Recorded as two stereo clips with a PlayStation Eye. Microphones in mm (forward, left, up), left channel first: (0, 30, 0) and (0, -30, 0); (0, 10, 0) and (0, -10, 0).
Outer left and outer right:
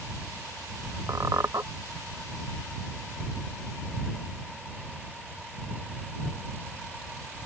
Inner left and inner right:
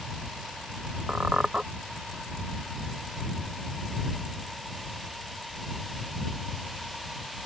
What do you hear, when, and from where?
1.1 s a squeak: 70° right (ahead or behind)